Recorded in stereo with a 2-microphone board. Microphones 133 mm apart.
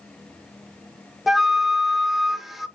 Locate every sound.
1.3 s a flute: centre (ahead or behind), 0.7 m